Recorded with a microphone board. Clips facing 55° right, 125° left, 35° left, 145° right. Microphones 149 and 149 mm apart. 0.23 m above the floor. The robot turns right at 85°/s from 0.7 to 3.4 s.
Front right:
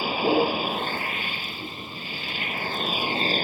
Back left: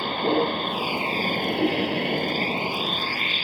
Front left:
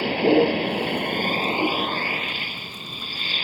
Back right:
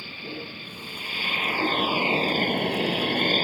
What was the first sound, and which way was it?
A vehicle, 30° left.